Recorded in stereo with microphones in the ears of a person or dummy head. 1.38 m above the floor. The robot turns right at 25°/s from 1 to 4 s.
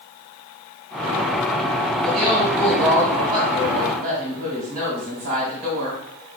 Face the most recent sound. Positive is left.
turn(degrees=-135)